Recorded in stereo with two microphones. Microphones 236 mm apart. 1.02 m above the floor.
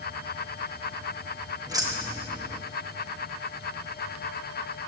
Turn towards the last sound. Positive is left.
turn(degrees=-15)  # may be behind; listen again after turning